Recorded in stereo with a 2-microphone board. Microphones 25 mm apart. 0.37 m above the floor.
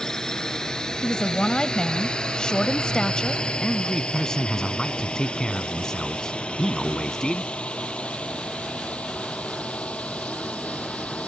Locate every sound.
0.0 s a drone: 25° left (ahead or behind); by 11.3 s 60° left (ahead or behind)
1.0 s a woman speaking: 35° left (ahead or behind)
3.6 s a man speaking: 25° left (ahead or behind)